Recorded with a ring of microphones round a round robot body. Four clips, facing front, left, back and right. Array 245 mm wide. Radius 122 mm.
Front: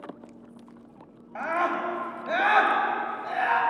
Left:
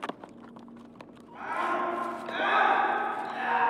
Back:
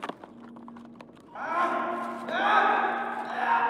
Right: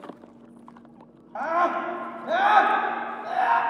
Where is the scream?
65° right, 5.5 m.